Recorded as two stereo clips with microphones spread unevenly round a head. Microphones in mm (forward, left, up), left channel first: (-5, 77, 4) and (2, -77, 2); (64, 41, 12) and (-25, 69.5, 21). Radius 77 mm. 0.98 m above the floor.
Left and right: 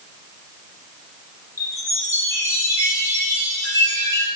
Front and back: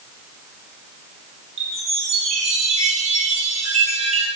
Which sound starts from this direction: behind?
A chime, at 1.6 s.